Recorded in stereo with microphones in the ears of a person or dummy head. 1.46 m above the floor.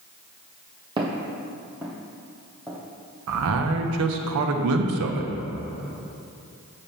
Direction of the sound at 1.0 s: 20° right (ahead or behind).